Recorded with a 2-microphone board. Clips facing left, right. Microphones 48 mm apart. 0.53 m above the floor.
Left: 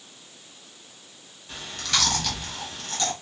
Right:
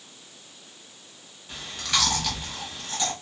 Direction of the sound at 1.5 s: 5° right (ahead or behind).